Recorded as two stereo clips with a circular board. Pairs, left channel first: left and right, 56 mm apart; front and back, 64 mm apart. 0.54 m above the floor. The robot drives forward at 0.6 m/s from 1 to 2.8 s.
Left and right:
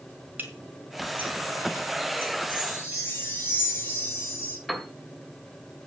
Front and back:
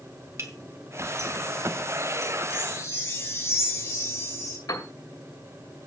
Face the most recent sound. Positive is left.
turn(degrees=0)